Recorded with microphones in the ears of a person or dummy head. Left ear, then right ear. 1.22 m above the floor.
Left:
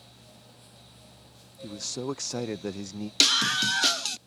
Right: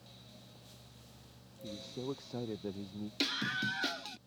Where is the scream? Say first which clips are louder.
Left 13 dB; 40° left (ahead or behind).